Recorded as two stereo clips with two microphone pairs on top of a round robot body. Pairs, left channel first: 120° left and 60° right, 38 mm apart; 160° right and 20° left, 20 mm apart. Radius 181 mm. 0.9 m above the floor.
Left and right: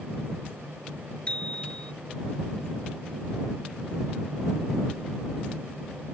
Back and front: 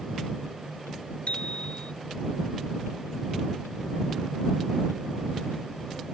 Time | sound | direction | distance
1.3 | a bicycle bell | straight behind | ?